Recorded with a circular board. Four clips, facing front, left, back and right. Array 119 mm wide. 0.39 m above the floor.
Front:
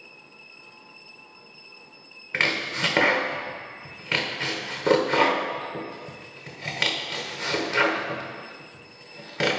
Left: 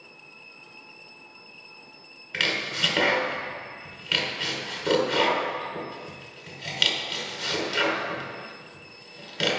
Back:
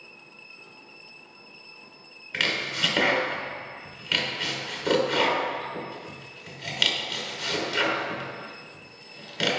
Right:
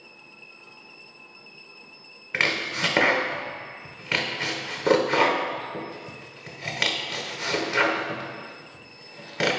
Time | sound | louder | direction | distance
2.3 | chopping | right 3 dB, front 3 dB | 45° right | 0.8 m